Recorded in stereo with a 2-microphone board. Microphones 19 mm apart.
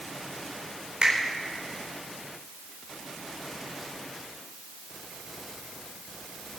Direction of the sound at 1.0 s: 75° right (ahead or behind).